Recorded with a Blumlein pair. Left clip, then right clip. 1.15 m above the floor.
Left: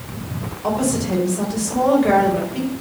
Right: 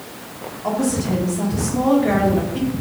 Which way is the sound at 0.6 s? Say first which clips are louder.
Left 1 dB; 70° left.